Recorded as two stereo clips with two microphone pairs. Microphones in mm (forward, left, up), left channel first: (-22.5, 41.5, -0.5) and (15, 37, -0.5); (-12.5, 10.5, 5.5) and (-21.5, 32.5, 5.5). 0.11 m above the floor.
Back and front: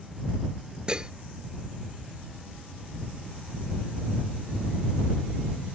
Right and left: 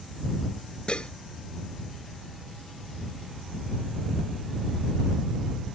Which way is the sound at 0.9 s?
60° right.